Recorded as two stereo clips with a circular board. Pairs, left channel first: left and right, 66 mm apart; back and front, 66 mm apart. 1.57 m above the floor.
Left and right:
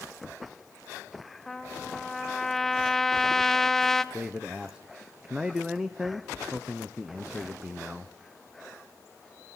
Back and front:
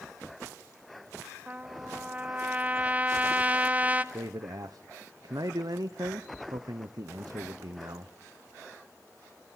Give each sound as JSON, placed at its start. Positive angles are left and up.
{"t": 1.5, "sound": "a trumpet", "azimuth_deg": 15, "distance_m": 0.7}
{"t": 4.1, "sound": "a man speaking", "azimuth_deg": -10, "distance_m": 0.8}